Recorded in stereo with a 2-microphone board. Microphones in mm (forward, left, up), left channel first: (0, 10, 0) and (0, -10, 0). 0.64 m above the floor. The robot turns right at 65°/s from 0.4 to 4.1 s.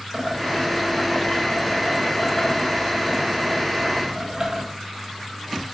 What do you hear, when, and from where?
0.1 s boiling: 35° right, 3.5 m; by 4.6 s 155° right, 3.5 m